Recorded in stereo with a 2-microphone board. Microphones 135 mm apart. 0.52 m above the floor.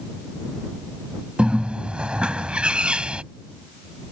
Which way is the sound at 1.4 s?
10° right (ahead or behind).